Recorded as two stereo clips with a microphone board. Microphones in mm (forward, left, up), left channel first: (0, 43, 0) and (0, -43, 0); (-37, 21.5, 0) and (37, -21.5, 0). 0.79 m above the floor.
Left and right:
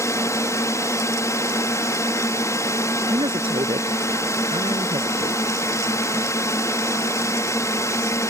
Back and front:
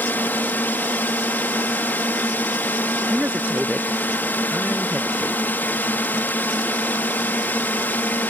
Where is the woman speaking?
105° right.